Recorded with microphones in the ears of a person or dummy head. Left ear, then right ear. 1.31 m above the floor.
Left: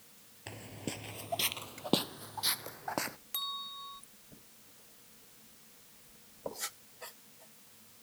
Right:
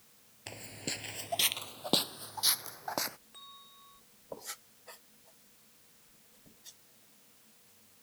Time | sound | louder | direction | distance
0.5 | footsteps | right 3 dB | 20° right (ahead or behind) | ?
3.3 | a bell | left 14 dB | 65° left (ahead or behind) | ?